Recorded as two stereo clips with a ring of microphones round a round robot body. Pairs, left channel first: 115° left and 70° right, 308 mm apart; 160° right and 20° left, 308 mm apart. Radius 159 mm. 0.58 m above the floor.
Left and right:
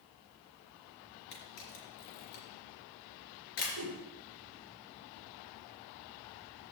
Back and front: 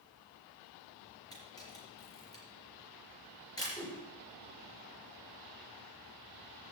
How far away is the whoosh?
About 2 m.